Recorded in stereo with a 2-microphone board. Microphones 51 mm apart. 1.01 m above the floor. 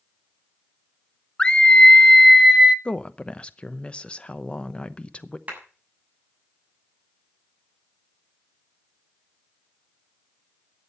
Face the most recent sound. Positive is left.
turn(degrees=-30)  # may be behind; listen again after turning